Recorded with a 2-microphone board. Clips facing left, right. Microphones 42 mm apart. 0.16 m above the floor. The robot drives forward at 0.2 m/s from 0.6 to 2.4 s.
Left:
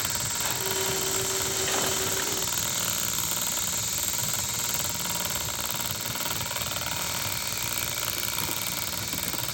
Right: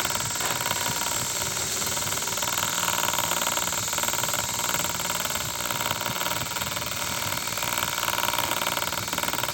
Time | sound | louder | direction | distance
0.4 | a whoosh | right 4 dB | 75° right (ahead or behind) | 5 m